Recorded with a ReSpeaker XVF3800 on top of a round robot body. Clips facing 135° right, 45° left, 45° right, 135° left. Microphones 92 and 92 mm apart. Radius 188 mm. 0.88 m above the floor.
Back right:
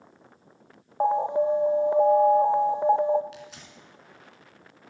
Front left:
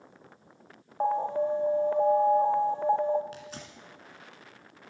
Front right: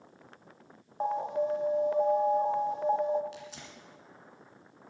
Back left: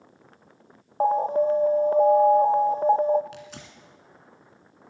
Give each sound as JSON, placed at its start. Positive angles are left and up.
{"t": 1.0, "sound": "an alarm", "azimuth_deg": 160, "distance_m": 0.9}
{"t": 3.3, "sound": "tearing paper", "azimuth_deg": 100, "distance_m": 1.8}